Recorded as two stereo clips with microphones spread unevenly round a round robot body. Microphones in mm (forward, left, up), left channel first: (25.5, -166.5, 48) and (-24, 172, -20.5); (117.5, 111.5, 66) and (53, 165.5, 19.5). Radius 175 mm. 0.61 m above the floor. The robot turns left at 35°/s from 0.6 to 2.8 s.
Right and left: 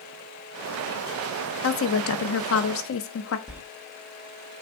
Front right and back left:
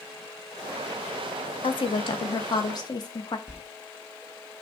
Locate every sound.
1.6 s a woman speaking: 60° right, 0.6 m; by 3.4 s 100° right, 0.6 m
3.5 s a sliding door: 175° left, 0.8 m